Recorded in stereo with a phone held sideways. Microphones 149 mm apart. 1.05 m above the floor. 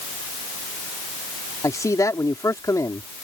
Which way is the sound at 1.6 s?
20° left (ahead or behind).